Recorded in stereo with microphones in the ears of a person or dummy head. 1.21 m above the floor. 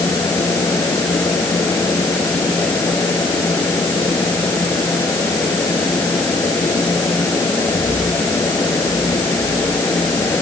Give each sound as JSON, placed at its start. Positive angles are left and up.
{"t": 0.0, "sound": "a fan", "side_deg": 15}